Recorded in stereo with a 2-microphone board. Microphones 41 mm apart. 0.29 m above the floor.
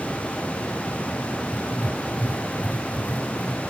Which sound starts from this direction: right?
Writing, at 1.5 s.